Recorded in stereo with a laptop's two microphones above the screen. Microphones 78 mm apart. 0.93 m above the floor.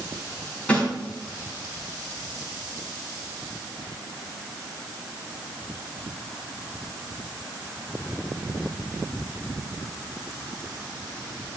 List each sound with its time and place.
0.7 s a snare drum: 15° left (ahead or behind), 4.5 m